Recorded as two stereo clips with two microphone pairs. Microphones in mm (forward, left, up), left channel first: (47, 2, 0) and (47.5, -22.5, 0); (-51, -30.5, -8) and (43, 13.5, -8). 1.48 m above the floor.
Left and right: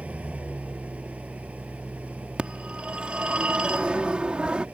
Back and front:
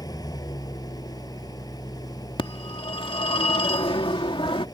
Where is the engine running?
105° right.